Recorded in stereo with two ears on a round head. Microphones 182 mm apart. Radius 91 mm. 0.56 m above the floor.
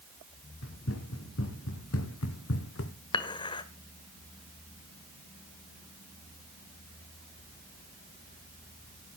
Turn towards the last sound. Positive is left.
turn(degrees=25)  # may be behind; listen again after turning